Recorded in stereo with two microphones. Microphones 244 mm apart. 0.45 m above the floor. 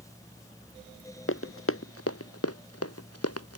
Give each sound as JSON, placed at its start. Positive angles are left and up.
{"t": 1.3, "sound": "running footsteps", "side_deg": 60}